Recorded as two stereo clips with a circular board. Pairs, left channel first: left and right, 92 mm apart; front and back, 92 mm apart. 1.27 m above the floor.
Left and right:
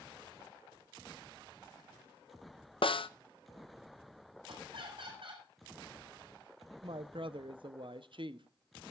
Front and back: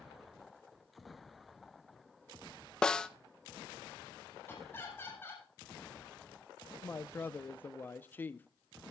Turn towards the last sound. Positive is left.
turn(degrees=-70)